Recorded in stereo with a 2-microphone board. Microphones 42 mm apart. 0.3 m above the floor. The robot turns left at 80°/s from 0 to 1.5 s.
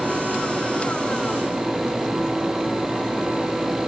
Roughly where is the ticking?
I don't hear ticking.